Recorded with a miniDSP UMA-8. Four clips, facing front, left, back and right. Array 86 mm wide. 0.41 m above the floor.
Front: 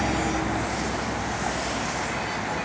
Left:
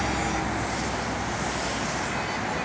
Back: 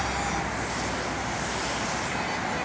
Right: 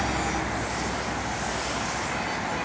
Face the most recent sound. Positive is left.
turn(degrees=15)